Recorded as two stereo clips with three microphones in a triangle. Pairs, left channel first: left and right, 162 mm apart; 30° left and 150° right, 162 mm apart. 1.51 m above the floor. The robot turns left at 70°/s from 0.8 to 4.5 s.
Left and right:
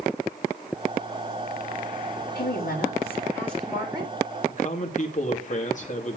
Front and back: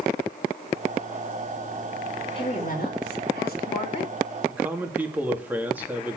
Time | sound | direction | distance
2.4 | a woman speaking | 90° left | 6 m
4.5 | a man speaking | 130° left | 3 m